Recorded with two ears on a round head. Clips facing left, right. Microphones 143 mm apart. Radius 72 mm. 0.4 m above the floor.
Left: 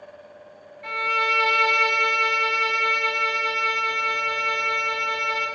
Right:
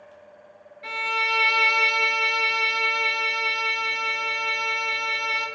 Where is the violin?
40° right (ahead or behind), 1.0 m.